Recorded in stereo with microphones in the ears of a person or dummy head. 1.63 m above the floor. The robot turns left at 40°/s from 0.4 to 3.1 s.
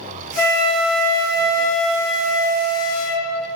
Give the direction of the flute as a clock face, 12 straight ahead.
10 o'clock.